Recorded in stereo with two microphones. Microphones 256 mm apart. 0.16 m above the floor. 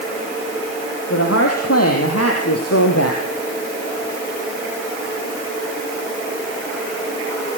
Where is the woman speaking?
65° left (ahead or behind), 4.5 m; by 3.2 s 75° left (ahead or behind), 4 m.